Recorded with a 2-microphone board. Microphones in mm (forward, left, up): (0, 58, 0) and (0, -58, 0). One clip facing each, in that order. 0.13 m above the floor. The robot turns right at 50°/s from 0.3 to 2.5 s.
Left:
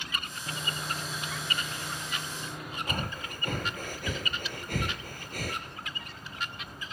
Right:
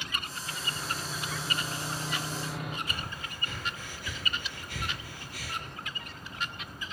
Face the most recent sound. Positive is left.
turn(degrees=50)  # may be behind; listen again after turning